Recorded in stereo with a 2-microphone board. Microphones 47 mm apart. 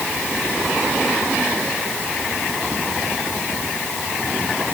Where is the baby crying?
I don't hear a baby crying.